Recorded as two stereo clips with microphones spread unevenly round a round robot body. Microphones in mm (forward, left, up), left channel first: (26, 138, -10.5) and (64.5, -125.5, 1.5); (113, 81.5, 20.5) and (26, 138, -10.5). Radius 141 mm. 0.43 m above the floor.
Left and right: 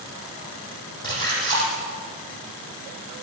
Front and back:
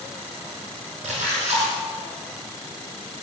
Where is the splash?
175° left, 8 m.